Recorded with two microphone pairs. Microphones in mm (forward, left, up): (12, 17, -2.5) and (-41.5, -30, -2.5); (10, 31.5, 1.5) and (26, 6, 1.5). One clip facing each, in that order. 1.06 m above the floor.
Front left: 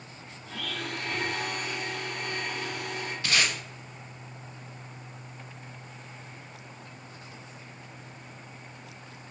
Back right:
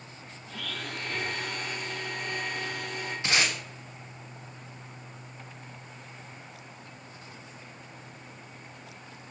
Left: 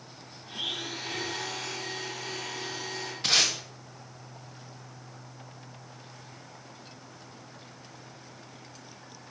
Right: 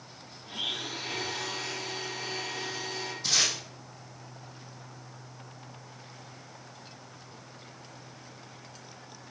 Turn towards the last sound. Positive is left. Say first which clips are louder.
# even, left 3 dB
turn(degrees=155)